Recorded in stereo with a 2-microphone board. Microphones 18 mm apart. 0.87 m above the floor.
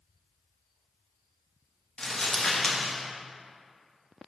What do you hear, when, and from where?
2.0 s crumpling: 60° left (ahead or behind), 1.3 m